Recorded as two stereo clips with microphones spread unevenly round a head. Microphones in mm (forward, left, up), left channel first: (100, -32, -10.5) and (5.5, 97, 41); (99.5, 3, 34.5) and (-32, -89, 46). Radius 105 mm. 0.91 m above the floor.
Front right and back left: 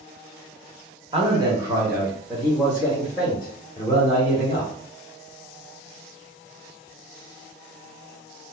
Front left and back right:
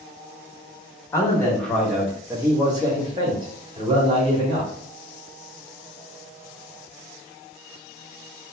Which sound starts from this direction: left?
A man speaking, at 1.1 s.